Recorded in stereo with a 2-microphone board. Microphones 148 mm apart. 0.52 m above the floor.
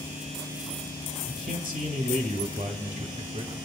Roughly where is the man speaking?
Right.